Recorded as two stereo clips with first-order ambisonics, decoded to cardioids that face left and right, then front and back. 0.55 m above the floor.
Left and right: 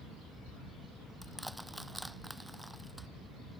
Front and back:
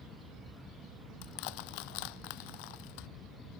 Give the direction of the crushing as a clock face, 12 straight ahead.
12 o'clock.